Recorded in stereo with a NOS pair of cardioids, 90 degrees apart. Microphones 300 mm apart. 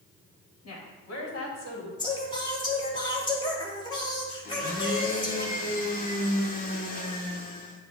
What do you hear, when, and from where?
0.6 s a woman speaking: 55° left, 2 m; by 1.9 s 45° left, 3 m
2.0 s singing: 15° left, 2 m
4.5 s a blender: 30° left, 1.4 m